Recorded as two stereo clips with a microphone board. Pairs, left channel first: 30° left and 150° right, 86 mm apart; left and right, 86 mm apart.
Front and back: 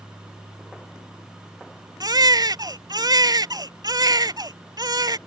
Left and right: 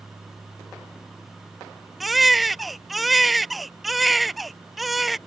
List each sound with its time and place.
2.0 s a baby crying: straight behind